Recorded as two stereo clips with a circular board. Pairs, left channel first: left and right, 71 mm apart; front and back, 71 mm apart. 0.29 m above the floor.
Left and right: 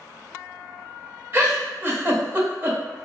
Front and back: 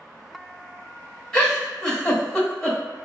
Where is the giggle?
75° right, 1.0 m.